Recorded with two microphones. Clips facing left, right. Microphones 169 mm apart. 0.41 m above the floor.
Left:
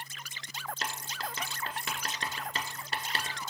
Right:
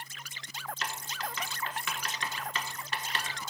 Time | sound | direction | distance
0.8 | writing | 40° left (ahead or behind) | 0.9 m